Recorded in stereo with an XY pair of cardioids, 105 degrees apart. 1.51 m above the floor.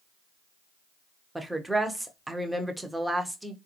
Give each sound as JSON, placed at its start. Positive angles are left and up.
{"t": 1.4, "sound": "a woman speaking", "azimuth_deg": -10, "distance_m": 0.9}